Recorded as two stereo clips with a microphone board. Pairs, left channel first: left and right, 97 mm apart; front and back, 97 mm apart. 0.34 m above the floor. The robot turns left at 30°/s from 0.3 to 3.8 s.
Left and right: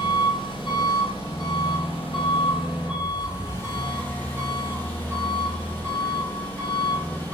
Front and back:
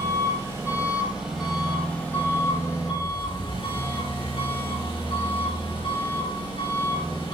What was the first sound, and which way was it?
An engine running, 125° left.